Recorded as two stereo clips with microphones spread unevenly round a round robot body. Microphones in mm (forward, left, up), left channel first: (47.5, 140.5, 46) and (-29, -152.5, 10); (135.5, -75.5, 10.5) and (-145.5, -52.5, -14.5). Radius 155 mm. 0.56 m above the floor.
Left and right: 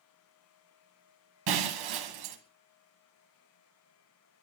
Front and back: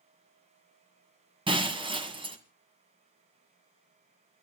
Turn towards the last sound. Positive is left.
turn(degrees=-110)